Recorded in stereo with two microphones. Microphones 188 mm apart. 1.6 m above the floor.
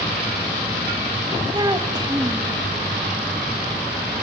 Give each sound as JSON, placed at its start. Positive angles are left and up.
{"t": 1.5, "sound": "a child speaking", "side_deg": -20, "distance_m": 1.6}